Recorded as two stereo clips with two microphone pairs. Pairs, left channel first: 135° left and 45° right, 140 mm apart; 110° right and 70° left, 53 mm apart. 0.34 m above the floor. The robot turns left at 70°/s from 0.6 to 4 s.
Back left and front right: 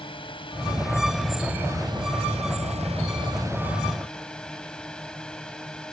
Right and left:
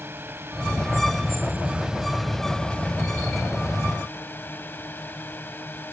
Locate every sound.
0.0 s a drone: 95° left; by 5.9 s 140° right